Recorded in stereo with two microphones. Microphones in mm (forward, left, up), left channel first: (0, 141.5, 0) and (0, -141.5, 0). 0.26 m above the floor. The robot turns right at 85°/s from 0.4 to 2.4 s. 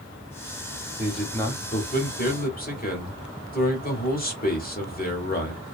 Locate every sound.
1.0 s a man speaking: 15° right, 1.1 m; by 5.6 s 105° left, 1.1 m